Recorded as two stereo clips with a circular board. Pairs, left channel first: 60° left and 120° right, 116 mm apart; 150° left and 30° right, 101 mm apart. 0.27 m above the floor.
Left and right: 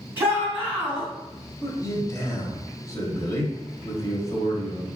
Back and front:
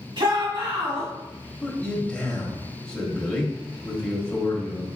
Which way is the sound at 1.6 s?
75° left.